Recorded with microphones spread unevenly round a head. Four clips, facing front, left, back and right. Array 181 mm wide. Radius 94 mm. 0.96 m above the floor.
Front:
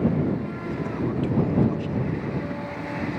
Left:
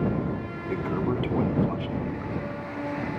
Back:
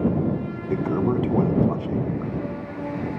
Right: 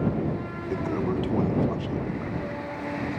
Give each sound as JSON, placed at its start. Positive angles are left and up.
{"t": 0.7, "sound": "a toilet flushing", "azimuth_deg": -175}